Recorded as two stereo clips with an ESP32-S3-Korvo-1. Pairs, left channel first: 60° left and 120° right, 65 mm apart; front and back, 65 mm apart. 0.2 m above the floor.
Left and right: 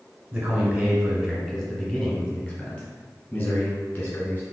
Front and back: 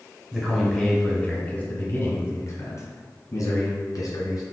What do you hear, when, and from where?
0.3 s a man speaking: 130° right, 1.1 m; by 4.4 s 10° left, 2.5 m